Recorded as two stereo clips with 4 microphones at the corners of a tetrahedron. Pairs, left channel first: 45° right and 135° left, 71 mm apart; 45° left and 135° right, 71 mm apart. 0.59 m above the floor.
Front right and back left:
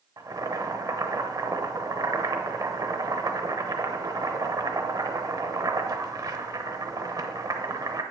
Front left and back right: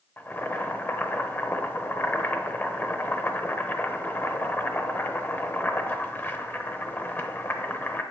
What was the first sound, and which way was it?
Boiling, 105° left.